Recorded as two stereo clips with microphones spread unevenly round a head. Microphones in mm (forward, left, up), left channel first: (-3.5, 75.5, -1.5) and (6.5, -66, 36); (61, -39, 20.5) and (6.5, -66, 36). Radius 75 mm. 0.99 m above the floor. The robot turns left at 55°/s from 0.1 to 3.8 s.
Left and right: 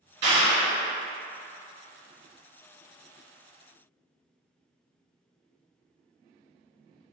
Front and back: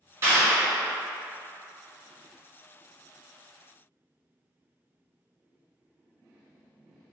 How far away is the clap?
About 1.7 m.